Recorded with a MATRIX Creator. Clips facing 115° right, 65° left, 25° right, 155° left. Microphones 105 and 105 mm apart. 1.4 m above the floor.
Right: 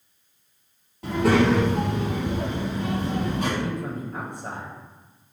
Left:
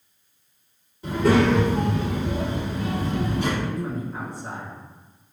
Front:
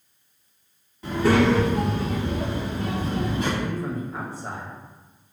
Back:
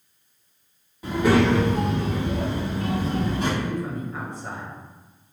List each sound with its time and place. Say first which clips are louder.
1.0 s a child speaking: left 1 dB, even; 125° right, 1.8 m; by 3.5 s 150° right, 3.5 m
3.6 s a man speaking: left 1 dB, even; 100° right, 1.0 m